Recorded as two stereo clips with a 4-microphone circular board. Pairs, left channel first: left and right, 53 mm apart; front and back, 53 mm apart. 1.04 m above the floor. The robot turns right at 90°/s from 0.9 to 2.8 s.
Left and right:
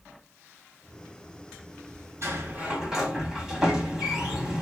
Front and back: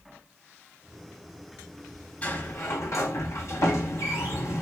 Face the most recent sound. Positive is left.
turn(degrees=-5)